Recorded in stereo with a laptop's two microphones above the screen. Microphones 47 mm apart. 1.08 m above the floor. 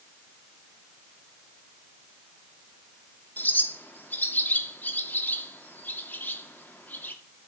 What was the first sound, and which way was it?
A bird, 45° left (ahead or behind).